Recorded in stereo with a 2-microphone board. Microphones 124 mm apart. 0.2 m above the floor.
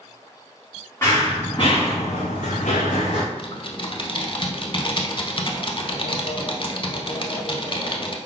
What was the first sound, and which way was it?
Running footsteps, 20° left (ahead or behind).